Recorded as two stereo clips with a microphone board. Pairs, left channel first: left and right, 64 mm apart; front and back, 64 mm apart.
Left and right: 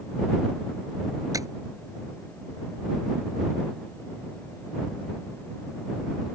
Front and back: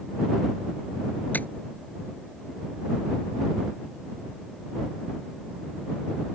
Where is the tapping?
60° right.